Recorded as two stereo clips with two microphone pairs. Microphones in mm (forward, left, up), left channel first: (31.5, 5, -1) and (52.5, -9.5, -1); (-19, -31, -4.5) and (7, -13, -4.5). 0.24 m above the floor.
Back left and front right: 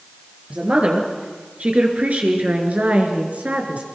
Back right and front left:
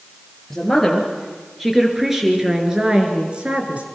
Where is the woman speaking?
60° right, 4.5 m; by 3.8 s 5° right, 3.5 m.